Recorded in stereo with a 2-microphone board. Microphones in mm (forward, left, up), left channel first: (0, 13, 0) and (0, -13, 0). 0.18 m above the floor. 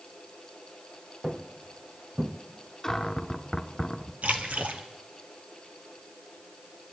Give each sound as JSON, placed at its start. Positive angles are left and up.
{"t": 1.2, "sound": "footsteps", "side_deg": -15, "distance_m": 2.0}
{"t": 2.8, "sound": "a cupboard door", "side_deg": 10, "distance_m": 1.0}
{"t": 4.2, "sound": "a splash", "side_deg": -70, "distance_m": 1.9}